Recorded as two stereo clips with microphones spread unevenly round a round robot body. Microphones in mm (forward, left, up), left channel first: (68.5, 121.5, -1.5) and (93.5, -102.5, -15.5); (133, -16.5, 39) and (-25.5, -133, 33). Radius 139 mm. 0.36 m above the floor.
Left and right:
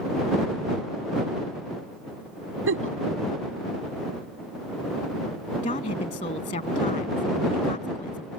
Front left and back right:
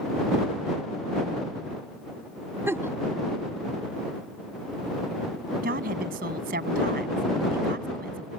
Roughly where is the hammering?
No hammering in this recording.